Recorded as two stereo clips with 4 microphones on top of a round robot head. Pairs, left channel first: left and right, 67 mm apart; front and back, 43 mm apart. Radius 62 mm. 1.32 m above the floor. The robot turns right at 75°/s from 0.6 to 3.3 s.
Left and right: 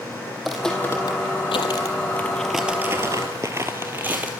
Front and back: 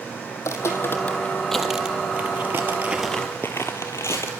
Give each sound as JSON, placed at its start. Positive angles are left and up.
{"t": 0.3, "sound": "footsteps", "azimuth_deg": 0, "distance_m": 2.5}